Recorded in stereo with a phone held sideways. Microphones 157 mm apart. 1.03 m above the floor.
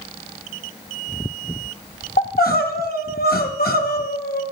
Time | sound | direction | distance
2.2 | crying | 80° left | 0.9 m